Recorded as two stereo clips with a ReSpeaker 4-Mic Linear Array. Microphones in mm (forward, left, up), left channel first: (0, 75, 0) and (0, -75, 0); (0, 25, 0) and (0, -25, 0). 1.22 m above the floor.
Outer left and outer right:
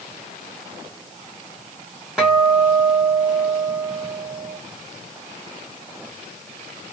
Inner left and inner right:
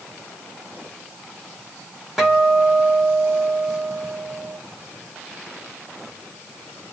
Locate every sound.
2.2 s a guitar: 5° right (ahead or behind), 1.7 m